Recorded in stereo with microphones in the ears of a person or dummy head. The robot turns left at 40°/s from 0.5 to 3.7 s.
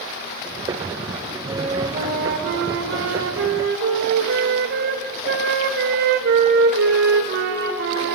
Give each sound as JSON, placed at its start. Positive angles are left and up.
{"t": 1.5, "sound": "a flute", "azimuth_deg": -30, "distance_m": 1.8}